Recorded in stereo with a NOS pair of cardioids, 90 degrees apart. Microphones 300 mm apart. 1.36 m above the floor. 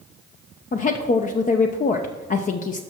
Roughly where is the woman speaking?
Ahead left.